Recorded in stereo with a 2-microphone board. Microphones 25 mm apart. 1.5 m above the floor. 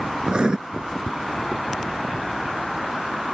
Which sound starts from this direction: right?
Writing, at 0.3 s.